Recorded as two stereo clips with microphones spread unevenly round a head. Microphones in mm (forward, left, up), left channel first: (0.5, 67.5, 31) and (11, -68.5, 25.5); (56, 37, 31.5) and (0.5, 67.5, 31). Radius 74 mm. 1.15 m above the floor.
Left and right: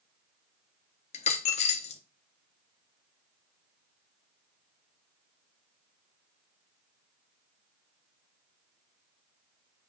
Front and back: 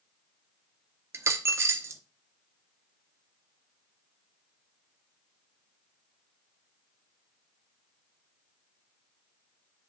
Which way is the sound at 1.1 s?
120° left.